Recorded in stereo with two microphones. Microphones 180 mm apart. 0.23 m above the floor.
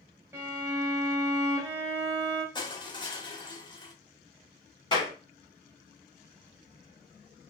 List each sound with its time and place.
0.3 s a violin: 15° right (ahead or behind), 1.0 m
2.5 s crushing: 25° left (ahead or behind), 0.7 m
4.9 s a clap: 25° left (ahead or behind), 1.4 m